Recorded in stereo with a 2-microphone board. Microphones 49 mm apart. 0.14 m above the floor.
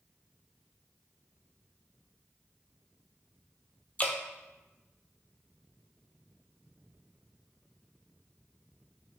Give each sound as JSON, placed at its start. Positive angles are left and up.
{"t": 4.0, "sound": "dripping", "side_deg": 30, "distance_m": 0.6}